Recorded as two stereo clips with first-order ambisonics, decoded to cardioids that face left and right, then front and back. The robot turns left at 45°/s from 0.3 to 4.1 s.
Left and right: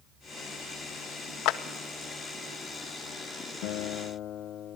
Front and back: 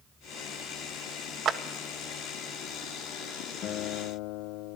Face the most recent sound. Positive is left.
turn(degrees=35)